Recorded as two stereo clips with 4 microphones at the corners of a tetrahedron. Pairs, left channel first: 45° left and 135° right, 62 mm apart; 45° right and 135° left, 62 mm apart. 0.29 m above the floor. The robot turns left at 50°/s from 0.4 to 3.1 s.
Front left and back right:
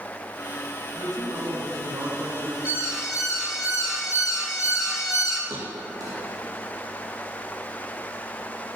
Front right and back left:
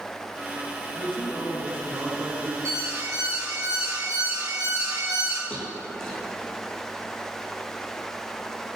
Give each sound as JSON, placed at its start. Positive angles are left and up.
{"t": 0.9, "sound": "a man speaking", "azimuth_deg": -110, "distance_m": 4.5}
{"t": 2.6, "sound": "an alarm", "azimuth_deg": 165, "distance_m": 5.5}
{"t": 5.5, "sound": "a thud", "azimuth_deg": -125, "distance_m": 5.0}